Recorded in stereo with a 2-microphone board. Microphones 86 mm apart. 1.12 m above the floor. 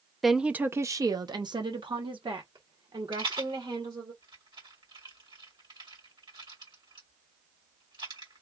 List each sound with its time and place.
0.2 s a woman speaking: centre (ahead or behind), 0.5 m; by 4.1 s 80° right, 2.0 m
3.1 s a rattle: 60° right (ahead or behind), 2.5 m